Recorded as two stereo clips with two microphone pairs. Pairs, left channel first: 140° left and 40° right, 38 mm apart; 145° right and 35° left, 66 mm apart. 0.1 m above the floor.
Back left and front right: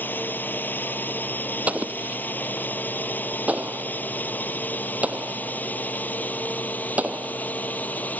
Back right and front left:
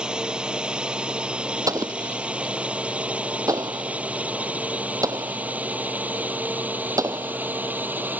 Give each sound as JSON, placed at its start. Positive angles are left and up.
{"t": 0.0, "sound": "a drone", "azimuth_deg": 110}
{"t": 1.7, "sound": "an explosion", "azimuth_deg": 10}